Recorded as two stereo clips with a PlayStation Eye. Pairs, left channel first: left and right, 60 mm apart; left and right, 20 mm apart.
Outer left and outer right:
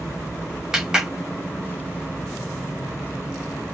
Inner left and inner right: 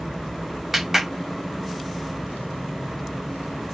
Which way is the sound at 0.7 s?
10° right (ahead or behind).